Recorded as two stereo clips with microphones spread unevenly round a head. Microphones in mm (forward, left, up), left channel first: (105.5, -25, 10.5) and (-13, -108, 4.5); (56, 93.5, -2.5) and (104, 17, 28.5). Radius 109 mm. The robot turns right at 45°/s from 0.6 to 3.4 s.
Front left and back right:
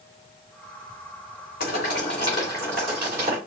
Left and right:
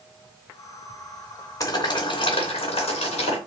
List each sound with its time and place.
1.6 s boiling: 65° left, 3 m; by 3.4 s 145° left, 3 m